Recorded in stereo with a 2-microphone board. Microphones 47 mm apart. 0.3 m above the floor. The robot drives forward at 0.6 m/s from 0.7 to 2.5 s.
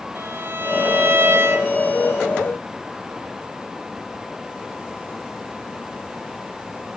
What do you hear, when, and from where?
0.1 s a violin: 45° right (ahead or behind), 2.0 m; by 1.7 s 60° right (ahead or behind), 1.7 m